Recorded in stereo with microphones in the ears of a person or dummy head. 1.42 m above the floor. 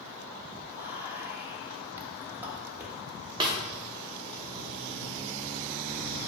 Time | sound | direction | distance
0.7 | whispering | 10° right (ahead or behind) | 0.8 m
3.4 | a snare drum | 25° right (ahead or behind) | 0.6 m